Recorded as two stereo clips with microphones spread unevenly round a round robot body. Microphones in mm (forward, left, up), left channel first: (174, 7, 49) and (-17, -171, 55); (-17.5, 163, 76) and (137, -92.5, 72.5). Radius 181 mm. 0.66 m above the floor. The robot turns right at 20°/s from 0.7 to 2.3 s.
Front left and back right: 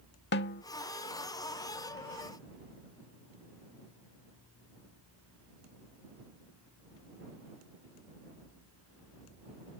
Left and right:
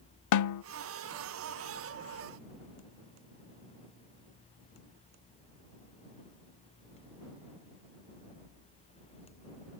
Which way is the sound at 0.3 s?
100° left.